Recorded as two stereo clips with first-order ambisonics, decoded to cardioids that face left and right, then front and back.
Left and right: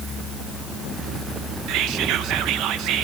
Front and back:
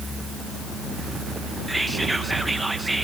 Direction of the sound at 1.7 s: 100° right.